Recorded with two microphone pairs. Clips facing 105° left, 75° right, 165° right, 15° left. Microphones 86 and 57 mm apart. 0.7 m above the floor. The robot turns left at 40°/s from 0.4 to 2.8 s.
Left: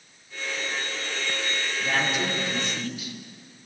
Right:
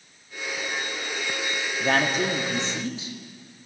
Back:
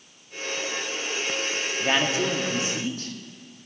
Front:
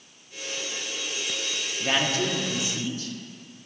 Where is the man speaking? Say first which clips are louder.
Right 4 dB, back 1 dB; 90° right, 0.8 m; by 3.1 s 130° right, 0.8 m.